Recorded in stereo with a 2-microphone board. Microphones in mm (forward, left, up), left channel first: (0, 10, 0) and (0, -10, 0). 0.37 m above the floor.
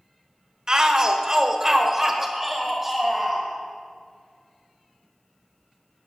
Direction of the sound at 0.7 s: 30° right (ahead or behind).